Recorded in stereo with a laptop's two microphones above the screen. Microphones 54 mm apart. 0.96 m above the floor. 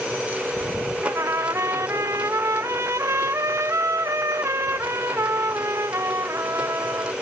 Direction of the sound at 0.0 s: 25° right (ahead or behind).